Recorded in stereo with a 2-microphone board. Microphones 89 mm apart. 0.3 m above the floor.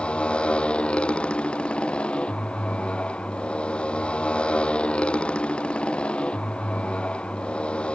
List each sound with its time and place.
0.0 s a motorcycle: 15° left (ahead or behind)